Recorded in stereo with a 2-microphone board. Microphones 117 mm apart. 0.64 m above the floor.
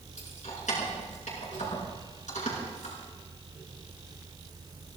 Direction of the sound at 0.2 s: 85° left.